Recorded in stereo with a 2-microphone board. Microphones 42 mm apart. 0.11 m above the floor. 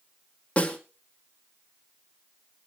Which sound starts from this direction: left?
A snare drum, at 0.6 s.